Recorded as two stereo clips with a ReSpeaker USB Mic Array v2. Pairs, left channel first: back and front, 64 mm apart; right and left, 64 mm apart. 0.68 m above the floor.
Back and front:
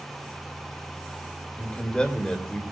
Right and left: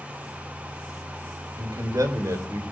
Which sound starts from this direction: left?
A man speaking, at 1.6 s.